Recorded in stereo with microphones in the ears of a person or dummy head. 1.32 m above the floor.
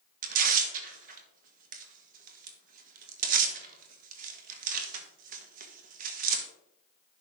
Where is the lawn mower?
No lawn mower in this recording.